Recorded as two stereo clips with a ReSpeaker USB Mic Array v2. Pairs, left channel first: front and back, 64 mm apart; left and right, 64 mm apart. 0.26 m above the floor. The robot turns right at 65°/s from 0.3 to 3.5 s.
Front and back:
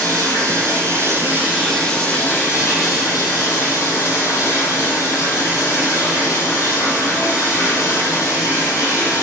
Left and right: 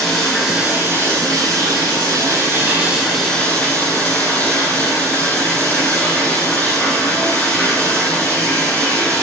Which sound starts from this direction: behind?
Running water, at 0.0 s.